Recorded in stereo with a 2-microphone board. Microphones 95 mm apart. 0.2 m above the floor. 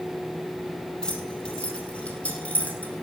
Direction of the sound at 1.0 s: 10° left (ahead or behind).